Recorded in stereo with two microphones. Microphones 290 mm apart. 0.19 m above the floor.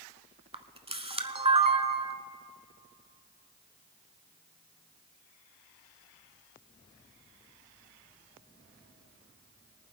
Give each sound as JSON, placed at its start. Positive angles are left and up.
{"t": 0.5, "sound": "a camera shutter", "side_deg": -20, "distance_m": 0.7}